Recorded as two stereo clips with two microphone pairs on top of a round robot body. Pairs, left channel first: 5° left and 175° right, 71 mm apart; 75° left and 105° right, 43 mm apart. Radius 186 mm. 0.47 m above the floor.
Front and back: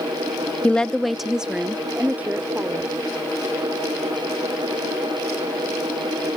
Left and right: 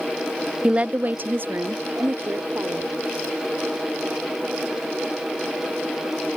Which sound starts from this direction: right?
A woman speaking, at 0.6 s.